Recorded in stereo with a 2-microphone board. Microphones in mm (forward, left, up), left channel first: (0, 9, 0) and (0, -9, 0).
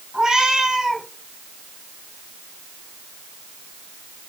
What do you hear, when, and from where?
0.1 s a cat meowing: 35° right (ahead or behind), 3.5 m